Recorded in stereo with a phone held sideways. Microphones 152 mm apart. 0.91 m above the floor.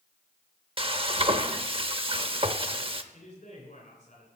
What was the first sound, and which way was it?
Frying, 40° right (ahead or behind).